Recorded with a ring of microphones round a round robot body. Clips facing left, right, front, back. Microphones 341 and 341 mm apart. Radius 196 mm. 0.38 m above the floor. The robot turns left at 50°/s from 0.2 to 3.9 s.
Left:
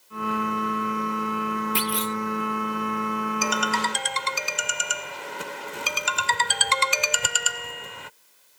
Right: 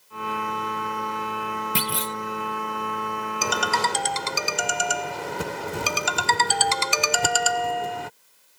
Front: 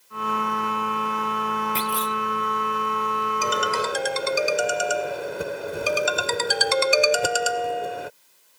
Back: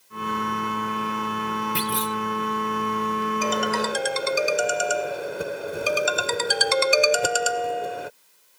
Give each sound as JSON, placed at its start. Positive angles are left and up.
{"t": 1.8, "sound": "a clunk", "azimuth_deg": -105}
{"t": 3.4, "sound": "a ringtone", "azimuth_deg": -65}